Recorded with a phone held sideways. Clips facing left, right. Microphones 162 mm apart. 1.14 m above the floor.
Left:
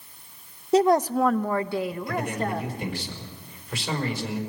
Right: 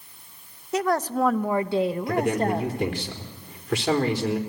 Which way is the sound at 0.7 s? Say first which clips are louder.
Left 5 dB; 35° left (ahead or behind).